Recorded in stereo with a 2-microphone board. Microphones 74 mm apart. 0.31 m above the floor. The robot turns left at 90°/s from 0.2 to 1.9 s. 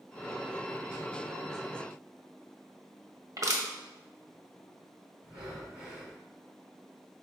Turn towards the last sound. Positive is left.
turn(degrees=-10)  # may be behind; listen again after turning